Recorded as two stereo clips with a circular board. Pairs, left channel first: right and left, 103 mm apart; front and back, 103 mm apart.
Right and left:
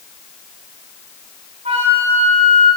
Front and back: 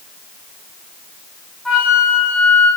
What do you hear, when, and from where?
1.6 s a flute: 90° left, 9.5 m